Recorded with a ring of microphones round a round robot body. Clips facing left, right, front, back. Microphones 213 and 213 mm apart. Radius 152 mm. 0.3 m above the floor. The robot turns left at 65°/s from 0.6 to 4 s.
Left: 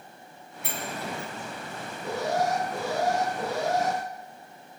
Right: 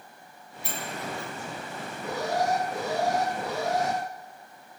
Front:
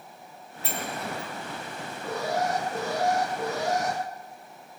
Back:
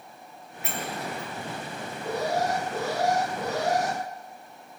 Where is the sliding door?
55° left, 4.5 m; by 1.3 s 15° left, 4.5 m.